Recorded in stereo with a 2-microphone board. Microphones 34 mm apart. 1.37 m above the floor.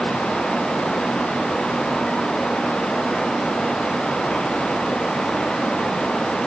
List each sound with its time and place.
Only background noise.